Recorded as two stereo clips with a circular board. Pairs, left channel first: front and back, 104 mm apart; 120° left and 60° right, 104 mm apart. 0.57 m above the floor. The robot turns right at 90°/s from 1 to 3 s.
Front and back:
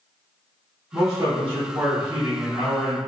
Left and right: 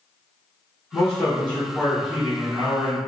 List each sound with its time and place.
0.9 s a man speaking: 155° left, 0.9 m; by 3.0 s 25° right, 0.9 m